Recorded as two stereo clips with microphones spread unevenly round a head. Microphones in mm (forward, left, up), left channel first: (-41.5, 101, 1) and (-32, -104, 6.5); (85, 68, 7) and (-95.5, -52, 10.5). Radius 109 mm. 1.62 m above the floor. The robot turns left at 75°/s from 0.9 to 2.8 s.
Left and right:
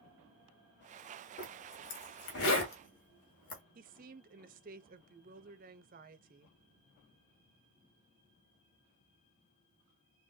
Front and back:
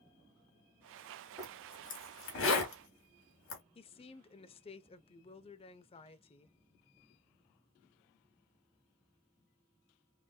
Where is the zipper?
145° left, 3 m; by 3.6 s 35° left, 3 m.